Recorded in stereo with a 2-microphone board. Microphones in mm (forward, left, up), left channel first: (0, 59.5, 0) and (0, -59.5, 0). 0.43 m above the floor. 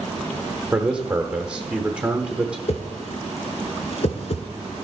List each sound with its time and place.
0.7 s a man speaking: 10° right (ahead or behind), 0.9 m
2.7 s a whoosh: 55° left (ahead or behind), 1.1 m